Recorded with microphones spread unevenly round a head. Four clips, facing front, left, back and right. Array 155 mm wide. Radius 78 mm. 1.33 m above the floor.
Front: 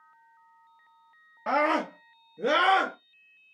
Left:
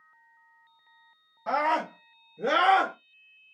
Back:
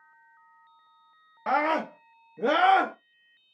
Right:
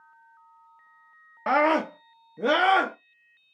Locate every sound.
1.5 s a scream: 80° right, 0.6 m; by 3.0 s 125° right, 1.1 m